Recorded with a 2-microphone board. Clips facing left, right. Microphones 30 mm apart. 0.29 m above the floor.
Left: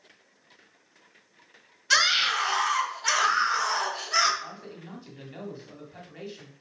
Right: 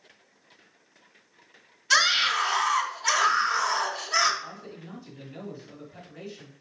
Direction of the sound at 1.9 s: 5° left (ahead or behind).